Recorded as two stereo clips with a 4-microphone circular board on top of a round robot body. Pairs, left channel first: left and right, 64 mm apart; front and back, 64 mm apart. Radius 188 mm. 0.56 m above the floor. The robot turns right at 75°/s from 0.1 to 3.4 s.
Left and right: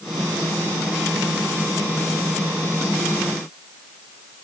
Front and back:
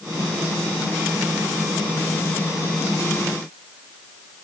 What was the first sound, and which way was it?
Only background noise.